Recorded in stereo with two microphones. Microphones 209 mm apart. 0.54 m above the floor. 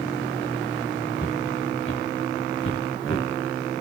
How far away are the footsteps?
About 3 m.